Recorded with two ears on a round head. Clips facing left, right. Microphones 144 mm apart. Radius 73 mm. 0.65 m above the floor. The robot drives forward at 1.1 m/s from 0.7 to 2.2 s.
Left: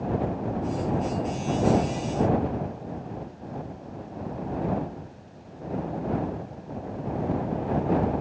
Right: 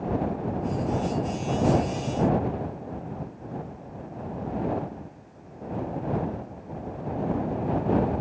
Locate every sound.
Only background noise.